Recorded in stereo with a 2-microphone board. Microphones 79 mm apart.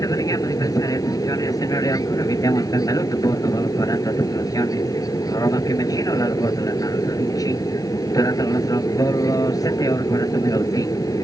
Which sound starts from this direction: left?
An aircraft, at 0.0 s.